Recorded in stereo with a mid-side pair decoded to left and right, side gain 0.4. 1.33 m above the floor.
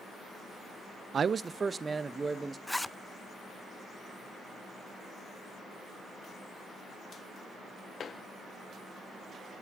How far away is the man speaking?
About 0.5 m.